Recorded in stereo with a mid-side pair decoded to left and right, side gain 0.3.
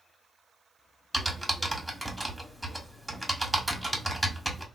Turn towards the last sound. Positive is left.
turn(degrees=-10)